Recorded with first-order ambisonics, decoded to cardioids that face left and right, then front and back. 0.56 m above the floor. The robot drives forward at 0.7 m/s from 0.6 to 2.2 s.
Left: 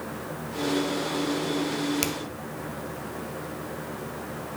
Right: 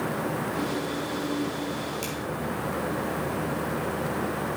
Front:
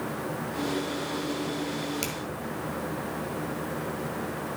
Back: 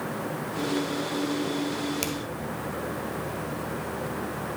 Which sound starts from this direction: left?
A finger snap, at 2.0 s.